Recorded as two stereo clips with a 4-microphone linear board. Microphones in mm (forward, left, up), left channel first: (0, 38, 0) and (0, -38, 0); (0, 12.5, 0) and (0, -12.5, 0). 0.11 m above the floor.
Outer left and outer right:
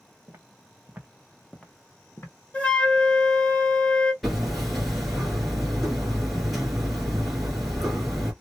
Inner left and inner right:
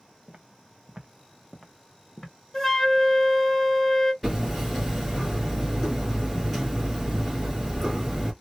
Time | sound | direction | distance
0.3 | footsteps | 35° right (ahead or behind) | 0.9 m
2.5 | a flute | 15° left (ahead or behind) | 1.1 m
4.2 | hammering | centre (ahead or behind) | 1.8 m